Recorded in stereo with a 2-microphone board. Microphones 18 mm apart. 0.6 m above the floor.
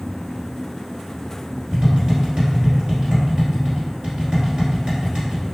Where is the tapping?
70° right (ahead or behind), 1.6 m.